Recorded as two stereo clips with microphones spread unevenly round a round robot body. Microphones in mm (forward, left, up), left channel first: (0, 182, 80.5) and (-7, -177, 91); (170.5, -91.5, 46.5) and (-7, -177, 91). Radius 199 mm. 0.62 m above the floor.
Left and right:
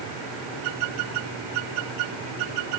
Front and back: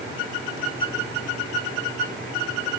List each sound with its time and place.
Only background noise.